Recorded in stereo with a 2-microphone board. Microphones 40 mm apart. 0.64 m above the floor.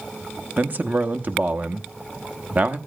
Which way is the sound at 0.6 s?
45° right (ahead or behind).